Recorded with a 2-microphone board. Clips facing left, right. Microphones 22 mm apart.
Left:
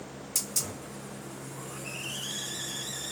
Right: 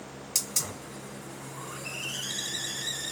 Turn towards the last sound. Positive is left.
turn(degrees=-55)  # may be behind; listen again after turning